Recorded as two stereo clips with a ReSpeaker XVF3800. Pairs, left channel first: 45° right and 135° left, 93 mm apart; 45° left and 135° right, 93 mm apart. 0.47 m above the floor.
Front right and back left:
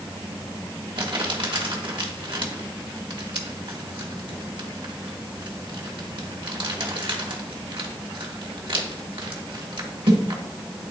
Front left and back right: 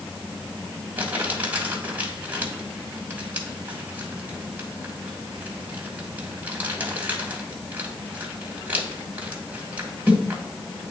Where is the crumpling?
155° left, 1.8 m.